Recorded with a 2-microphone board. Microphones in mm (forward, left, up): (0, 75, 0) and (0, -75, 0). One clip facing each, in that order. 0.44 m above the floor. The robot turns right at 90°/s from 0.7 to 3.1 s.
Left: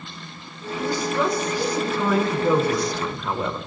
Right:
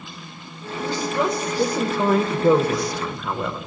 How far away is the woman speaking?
About 1.3 m.